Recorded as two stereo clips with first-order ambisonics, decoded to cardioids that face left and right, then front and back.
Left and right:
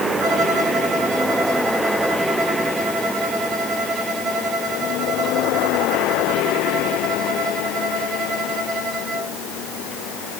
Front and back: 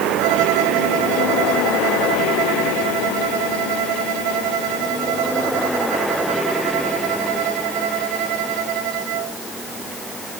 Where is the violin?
155° right, 3.5 m.